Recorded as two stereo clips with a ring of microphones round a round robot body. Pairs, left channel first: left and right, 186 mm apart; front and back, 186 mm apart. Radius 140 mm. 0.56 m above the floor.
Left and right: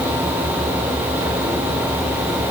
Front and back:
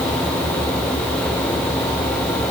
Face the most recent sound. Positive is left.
No sound to turn to.